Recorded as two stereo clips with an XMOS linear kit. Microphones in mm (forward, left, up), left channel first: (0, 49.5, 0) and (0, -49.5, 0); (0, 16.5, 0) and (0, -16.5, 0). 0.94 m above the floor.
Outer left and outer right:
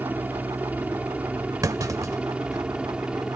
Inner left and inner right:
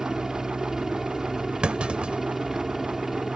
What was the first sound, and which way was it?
A helicopter, 20° right (ahead or behind).